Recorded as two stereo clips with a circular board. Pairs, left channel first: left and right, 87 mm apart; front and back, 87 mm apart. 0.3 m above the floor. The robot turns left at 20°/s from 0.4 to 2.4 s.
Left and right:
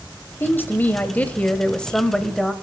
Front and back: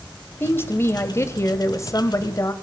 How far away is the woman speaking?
About 1.0 m.